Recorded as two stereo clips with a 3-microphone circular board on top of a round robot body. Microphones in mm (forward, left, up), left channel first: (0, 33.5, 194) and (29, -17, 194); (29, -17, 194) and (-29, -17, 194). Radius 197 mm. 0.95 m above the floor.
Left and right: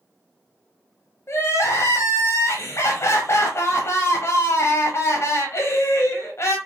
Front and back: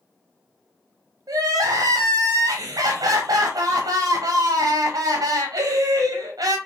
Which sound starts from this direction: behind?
Crying, at 1.3 s.